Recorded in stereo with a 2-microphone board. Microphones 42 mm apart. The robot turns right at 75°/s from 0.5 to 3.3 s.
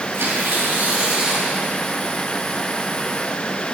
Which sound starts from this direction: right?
Tearing paper, at 0.1 s.